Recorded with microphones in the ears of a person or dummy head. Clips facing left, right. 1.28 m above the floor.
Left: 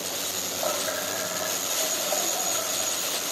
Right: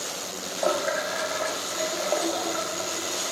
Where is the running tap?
55° right (ahead or behind).